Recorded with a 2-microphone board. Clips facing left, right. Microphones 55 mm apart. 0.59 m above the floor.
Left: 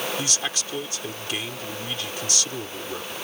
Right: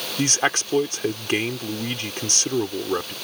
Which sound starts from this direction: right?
A man speaking, at 0.2 s.